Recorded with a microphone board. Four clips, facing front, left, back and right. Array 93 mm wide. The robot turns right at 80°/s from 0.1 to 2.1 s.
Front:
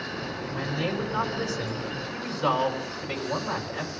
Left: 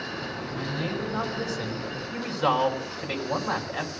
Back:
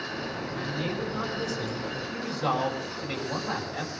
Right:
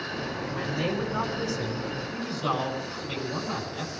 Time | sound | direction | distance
0.5 | a man speaking | 35° right | 4 m